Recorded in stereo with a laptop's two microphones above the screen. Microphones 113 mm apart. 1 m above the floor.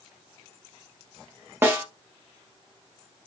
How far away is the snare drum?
About 1.0 m.